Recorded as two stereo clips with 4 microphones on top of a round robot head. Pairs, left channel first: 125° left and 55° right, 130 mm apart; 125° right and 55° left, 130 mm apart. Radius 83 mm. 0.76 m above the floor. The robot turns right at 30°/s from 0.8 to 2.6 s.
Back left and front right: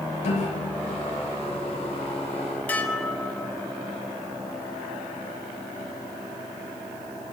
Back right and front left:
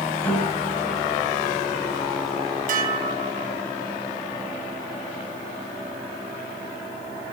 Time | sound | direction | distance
0.2 | a piano | 160° left | 9 m
2.7 | dishes clattering | 45° left | 3.5 m